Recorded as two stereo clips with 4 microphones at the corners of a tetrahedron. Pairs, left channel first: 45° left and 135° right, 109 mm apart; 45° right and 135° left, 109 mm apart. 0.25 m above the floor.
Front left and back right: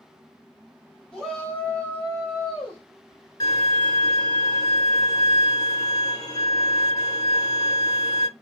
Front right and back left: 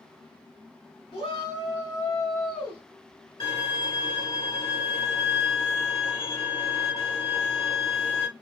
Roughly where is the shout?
Ahead right.